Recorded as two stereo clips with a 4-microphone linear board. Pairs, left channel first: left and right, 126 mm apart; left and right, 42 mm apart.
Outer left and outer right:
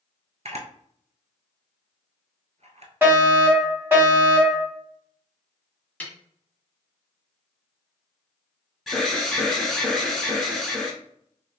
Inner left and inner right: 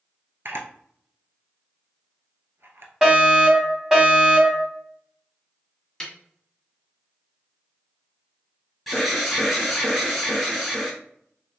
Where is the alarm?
Centre (ahead or behind), 1.6 m.